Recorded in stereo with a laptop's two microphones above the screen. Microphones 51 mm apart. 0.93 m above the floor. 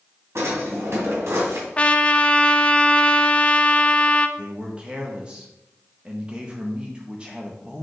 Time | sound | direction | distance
0.3 | a drawer | 70° right (ahead or behind) | 2 m
1.8 | a trumpet | 25° left (ahead or behind) | 0.5 m
4.4 | a man speaking | 20° right (ahead or behind) | 0.7 m